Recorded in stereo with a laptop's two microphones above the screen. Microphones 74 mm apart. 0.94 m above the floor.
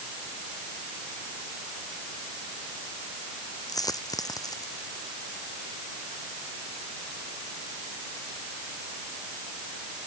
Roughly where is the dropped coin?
Left.